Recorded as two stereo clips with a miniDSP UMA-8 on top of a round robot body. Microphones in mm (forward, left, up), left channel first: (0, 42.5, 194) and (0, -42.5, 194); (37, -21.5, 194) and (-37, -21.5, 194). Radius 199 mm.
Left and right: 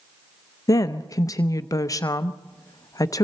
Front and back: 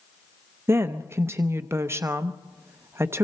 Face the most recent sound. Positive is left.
turn(degrees=130)